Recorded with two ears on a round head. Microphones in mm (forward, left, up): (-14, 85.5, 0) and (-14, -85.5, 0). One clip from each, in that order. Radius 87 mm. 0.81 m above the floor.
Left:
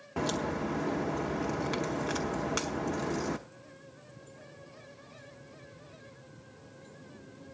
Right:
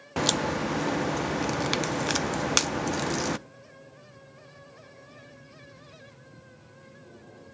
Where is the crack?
80° right, 0.5 m.